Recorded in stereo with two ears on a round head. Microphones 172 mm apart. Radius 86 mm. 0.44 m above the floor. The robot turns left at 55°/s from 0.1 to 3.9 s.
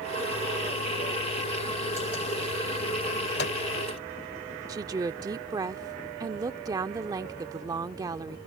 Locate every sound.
3.4 s a microwave: 55° left (ahead or behind)
4.7 s a woman speaking: 20° right (ahead or behind)